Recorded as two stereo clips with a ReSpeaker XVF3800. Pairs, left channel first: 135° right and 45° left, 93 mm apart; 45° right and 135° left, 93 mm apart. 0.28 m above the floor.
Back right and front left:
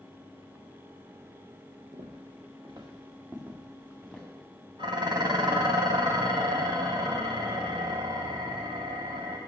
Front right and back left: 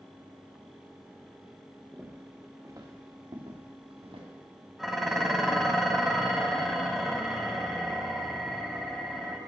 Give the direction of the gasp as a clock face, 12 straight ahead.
No gasp in this recording.